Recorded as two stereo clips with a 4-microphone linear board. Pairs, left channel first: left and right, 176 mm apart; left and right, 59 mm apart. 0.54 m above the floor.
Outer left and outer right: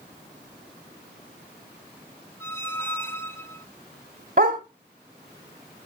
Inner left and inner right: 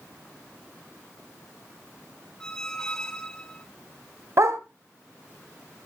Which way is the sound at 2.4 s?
15° left (ahead or behind).